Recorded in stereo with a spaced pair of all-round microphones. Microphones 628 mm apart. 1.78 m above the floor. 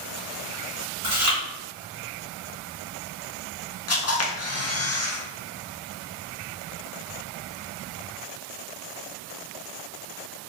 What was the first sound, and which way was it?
Chewing, 30° right (ahead or behind).